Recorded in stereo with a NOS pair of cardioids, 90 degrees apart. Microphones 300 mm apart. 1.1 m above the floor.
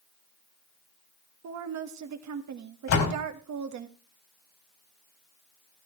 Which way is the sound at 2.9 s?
65° left.